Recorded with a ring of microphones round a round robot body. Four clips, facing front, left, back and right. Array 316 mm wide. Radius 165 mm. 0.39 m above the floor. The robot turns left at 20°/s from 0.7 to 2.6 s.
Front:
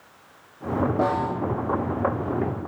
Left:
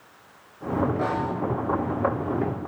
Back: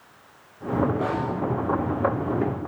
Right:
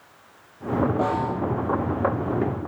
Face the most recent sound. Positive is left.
turn(degrees=-55)